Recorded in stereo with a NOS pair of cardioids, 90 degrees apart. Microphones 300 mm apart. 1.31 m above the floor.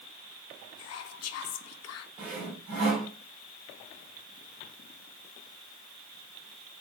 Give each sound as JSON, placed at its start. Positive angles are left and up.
{"t": 0.8, "sound": "whispering", "azimuth_deg": 60, "distance_m": 0.7}
{"t": 2.2, "sound": "sawing", "azimuth_deg": -70, "distance_m": 2.5}